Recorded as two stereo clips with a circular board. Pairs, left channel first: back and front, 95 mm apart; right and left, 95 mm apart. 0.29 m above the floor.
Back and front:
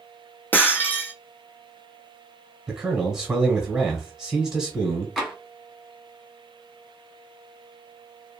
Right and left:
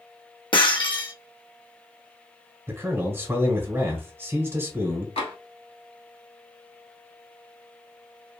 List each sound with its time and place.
0.5 s breaking glass: 115° right, 0.7 m
2.7 s a man speaking: 70° left, 1.1 m
5.2 s tapping: 90° right, 1.2 m